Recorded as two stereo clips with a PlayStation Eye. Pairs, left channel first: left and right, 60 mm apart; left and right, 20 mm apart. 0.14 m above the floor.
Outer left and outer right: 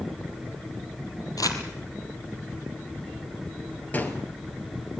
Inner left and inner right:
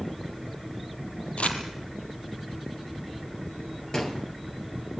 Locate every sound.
1.4 s crumpling: 75° left (ahead or behind), 2.5 m
3.9 s a gunshot: 30° left (ahead or behind), 2.5 m